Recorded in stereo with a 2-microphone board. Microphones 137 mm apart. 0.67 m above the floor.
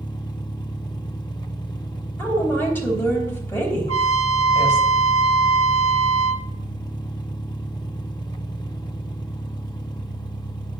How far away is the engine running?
About 1.0 m.